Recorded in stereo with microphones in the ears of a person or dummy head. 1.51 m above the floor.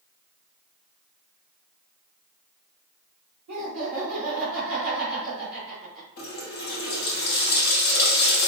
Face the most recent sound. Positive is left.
turn(degrees=50)  # may be behind; listen again after turning